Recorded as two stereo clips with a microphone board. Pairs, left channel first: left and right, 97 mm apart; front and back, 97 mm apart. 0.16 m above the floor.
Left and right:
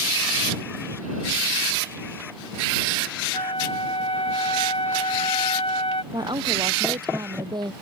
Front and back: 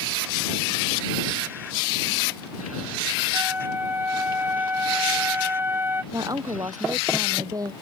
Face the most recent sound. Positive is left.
turn(degrees=-130)